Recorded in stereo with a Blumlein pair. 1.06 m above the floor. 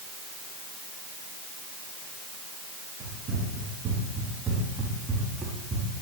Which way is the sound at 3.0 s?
35° right.